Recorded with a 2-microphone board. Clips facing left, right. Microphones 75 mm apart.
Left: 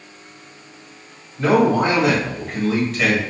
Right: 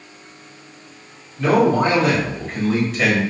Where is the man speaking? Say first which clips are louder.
Even; 25° left (ahead or behind), 1.8 m; by 3.2 s 5° right (ahead or behind), 1.3 m.